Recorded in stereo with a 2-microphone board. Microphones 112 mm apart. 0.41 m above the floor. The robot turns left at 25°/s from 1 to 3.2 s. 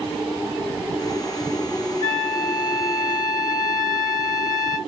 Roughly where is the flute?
Right.